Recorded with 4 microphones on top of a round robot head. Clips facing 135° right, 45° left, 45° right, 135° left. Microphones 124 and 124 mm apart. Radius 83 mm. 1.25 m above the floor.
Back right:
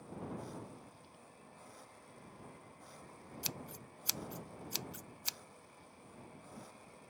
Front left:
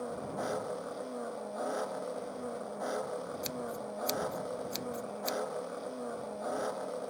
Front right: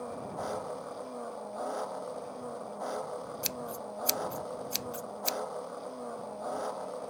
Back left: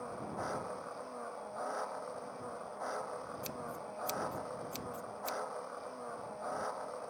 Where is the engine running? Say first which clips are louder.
Front left 9 dB, front right 4 dB; 25° left.